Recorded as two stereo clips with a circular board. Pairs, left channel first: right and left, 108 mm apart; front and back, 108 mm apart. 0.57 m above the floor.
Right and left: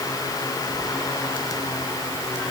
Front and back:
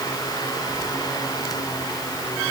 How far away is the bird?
I don't hear a bird.